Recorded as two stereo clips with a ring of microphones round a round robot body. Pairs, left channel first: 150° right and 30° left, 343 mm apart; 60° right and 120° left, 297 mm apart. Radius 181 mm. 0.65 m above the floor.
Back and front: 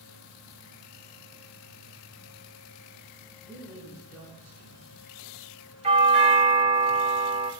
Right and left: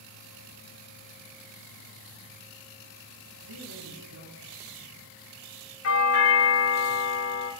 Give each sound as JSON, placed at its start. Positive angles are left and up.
{"t": 3.4, "sound": "a woman speaking", "azimuth_deg": 125, "distance_m": 7.5}
{"t": 5.8, "sound": "a doorbell", "azimuth_deg": -40, "distance_m": 3.0}